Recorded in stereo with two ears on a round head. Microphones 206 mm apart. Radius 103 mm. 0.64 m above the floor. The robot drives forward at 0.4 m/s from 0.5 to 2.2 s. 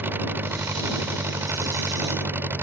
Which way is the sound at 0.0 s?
10° right (ahead or behind).